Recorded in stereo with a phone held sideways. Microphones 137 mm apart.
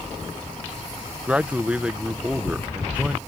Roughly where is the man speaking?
Centre.